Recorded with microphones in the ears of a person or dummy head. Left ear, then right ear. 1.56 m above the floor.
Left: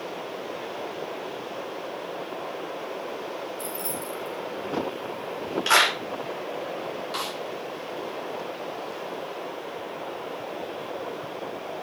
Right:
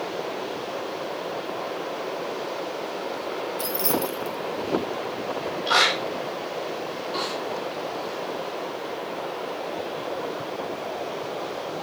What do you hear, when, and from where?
3.6 s keys jangling: 10° right (ahead or behind), 1.0 m
5.7 s a clap: 65° left (ahead or behind), 2.5 m
7.1 s a snare drum: 65° left (ahead or behind), 2.5 m